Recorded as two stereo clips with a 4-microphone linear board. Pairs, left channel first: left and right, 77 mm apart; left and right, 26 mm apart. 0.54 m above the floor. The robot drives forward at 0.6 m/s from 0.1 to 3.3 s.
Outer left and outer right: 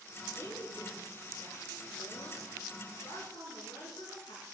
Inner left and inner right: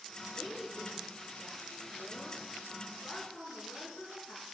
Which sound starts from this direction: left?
A woman speaking, at 0.3 s.